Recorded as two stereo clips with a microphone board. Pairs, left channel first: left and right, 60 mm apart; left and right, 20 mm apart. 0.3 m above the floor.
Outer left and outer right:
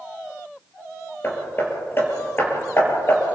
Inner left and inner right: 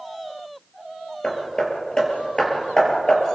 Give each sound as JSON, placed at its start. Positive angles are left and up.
{"t": 1.2, "sound": "hammering", "side_deg": 40, "distance_m": 5.5}